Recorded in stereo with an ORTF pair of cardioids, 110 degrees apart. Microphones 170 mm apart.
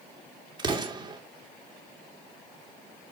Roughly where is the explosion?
Ahead right.